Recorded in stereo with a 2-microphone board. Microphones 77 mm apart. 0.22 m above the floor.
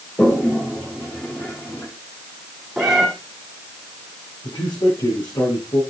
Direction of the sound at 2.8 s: Centre (ahead or behind).